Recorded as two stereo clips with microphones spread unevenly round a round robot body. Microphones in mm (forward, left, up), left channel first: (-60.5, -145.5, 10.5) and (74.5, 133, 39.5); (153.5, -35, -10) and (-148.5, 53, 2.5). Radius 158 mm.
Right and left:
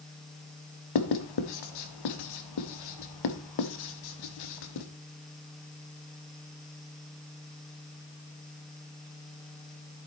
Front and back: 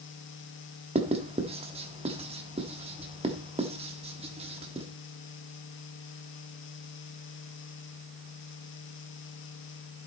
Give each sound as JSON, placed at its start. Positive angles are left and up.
{"t": 0.9, "sound": "writing", "azimuth_deg": -125, "distance_m": 1.3}